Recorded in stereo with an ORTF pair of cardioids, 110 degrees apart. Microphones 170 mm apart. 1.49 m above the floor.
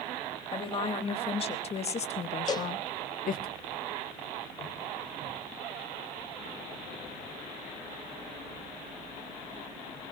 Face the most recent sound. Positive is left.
turn(degrees=25)